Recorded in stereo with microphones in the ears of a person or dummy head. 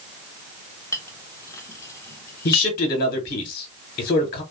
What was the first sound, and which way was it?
A clink, 15° left (ahead or behind).